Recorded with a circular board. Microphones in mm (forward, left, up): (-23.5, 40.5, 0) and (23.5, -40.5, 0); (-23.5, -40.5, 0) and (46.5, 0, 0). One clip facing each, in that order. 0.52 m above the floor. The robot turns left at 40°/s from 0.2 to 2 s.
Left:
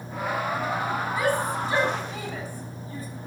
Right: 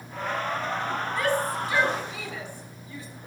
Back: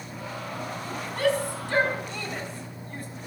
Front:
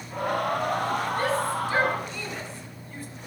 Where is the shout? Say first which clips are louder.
Even, even; 155° right, 5 m; by 3.1 s 170° left, 5 m.